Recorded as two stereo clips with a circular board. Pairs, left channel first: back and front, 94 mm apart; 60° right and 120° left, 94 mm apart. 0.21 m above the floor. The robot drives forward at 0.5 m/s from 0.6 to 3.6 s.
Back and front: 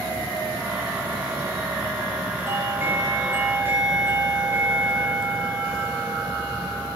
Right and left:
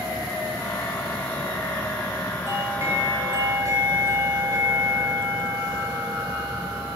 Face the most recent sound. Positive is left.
turn(degrees=65)